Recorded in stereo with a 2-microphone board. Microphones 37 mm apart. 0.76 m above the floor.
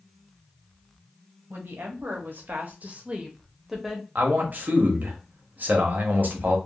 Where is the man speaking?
50° right (ahead or behind), 0.8 m.